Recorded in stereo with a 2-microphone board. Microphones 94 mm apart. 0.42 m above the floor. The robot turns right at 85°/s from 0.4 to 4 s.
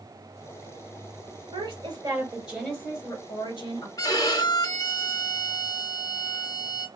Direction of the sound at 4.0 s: 40° left (ahead or behind).